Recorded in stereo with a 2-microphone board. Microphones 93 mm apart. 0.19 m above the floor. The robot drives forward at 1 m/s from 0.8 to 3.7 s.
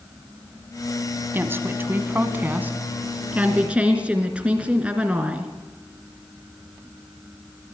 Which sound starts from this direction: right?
A woman speaking, at 1.3 s.